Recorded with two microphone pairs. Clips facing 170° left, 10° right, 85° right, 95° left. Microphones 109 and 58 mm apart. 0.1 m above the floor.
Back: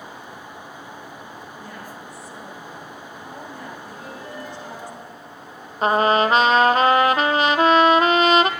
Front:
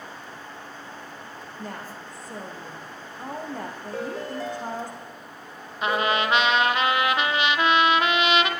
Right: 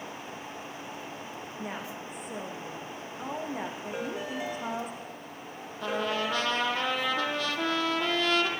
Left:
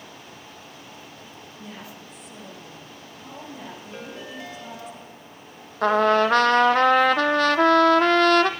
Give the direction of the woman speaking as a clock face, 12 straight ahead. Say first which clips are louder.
Even, right 3 dB; 2 o'clock.